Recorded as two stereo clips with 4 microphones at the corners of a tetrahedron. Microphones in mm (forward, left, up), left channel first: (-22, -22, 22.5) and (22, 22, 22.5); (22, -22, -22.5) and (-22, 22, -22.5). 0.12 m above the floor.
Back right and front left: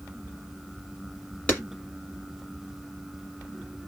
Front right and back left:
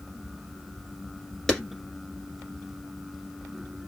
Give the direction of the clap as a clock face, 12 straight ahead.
4 o'clock.